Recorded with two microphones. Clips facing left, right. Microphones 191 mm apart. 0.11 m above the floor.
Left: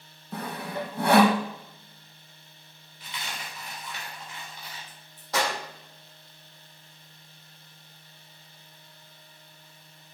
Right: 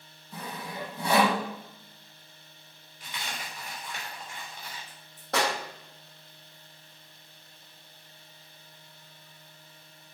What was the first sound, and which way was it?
Sawing, 75° left (ahead or behind).